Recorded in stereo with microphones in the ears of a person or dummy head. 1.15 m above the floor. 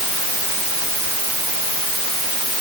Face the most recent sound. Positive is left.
No sound to turn to.